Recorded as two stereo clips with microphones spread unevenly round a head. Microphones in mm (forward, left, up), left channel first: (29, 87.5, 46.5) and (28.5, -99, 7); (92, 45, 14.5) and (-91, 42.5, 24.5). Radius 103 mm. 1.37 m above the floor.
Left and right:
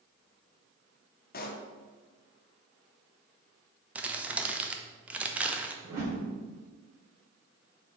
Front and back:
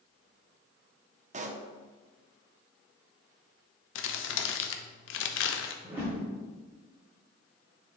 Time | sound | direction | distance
1.3 | a pop | 135° left | 0.8 m
4.0 | crumpling | 5° right | 0.7 m
5.8 | a whoosh | 100° right | 2.5 m